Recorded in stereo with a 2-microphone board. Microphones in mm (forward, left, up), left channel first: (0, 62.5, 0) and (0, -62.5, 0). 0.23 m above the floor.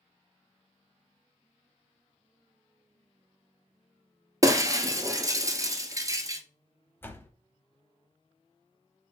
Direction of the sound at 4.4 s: 25° right (ahead or behind).